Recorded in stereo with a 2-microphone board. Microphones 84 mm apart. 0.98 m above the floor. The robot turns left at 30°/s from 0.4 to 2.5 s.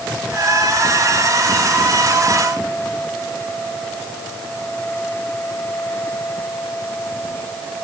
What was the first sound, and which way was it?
Only background noise.